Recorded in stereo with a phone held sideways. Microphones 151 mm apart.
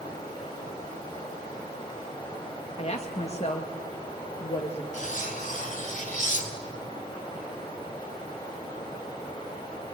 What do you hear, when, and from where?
0.0 s running water: 30° left (ahead or behind), 7 m
2.8 s a woman speaking: 45° left (ahead or behind), 1.5 m
4.9 s cutlery clinking: 55° left (ahead or behind), 2.5 m